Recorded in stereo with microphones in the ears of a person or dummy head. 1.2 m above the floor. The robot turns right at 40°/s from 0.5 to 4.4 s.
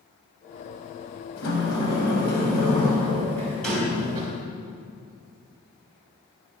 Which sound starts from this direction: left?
A sliding door, at 1.4 s.